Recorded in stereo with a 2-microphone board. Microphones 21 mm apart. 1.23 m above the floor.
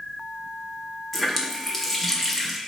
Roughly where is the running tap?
Centre.